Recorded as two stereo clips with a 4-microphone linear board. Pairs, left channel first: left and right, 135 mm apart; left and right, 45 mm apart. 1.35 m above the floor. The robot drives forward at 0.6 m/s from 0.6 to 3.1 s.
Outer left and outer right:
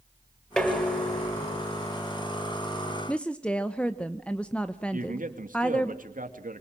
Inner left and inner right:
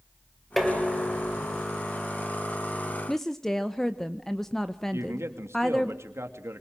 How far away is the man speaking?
About 2.5 m.